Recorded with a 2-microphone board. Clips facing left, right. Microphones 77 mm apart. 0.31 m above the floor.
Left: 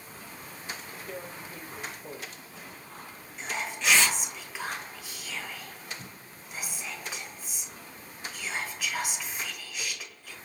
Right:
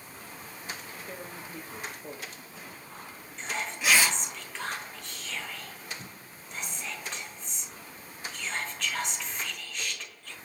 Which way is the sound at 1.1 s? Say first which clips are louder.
Left 2 dB; 10° right (ahead or behind).